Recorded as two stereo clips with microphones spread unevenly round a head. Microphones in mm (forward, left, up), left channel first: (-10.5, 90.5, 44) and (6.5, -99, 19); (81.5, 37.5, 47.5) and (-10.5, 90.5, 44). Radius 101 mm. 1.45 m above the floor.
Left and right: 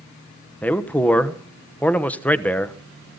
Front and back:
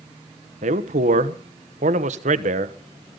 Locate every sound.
0.6 s a man speaking: straight behind, 1.0 m